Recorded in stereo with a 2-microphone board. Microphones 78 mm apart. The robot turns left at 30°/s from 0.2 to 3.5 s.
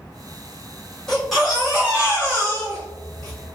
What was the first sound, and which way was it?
A baby crying, 5° left.